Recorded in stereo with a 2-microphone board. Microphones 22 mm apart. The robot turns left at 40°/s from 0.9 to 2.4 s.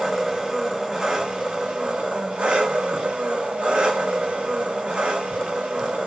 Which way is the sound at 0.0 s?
20° right.